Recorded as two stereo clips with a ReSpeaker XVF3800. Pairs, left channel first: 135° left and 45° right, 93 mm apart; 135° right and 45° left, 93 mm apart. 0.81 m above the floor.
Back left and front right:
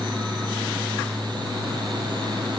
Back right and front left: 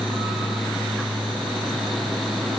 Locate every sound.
Only background noise.